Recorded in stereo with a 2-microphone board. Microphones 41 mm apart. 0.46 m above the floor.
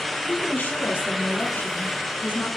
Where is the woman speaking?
55° left (ahead or behind), 5 m; by 2.5 s 60° left (ahead or behind), 7 m.